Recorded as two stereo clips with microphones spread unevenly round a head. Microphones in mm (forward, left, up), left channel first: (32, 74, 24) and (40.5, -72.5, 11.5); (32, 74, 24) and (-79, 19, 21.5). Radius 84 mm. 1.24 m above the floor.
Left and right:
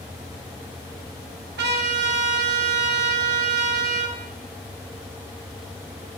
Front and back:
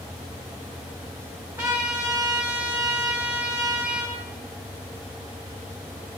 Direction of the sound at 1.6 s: 80° right.